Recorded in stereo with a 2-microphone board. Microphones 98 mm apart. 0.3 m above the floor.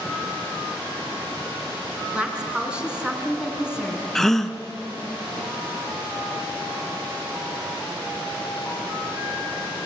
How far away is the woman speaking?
About 4 m.